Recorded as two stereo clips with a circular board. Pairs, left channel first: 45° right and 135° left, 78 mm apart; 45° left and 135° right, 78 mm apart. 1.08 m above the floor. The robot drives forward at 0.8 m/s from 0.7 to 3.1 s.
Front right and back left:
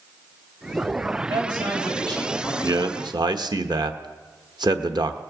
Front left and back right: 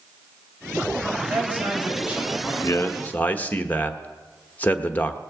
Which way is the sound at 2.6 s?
95° left.